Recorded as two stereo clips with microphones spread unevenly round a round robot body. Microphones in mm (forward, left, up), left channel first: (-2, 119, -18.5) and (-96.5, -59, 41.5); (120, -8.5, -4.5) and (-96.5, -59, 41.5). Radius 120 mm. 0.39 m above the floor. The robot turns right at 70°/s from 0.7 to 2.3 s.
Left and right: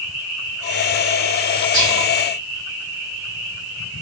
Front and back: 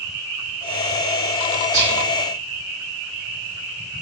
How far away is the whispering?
About 2 m.